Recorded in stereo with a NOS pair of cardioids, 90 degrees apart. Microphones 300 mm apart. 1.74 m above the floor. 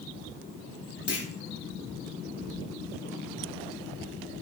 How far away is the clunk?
About 3.5 m.